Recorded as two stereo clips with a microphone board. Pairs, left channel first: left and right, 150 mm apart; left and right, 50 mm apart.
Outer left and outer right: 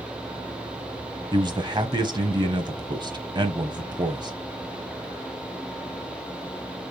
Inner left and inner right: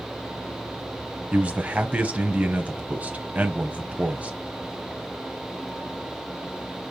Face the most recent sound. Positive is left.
turn(degrees=-30)  # may be behind; listen again after turning